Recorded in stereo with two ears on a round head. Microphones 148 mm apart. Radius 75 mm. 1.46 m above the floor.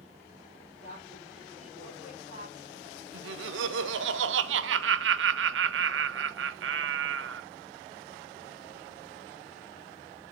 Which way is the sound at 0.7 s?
45° left (ahead or behind).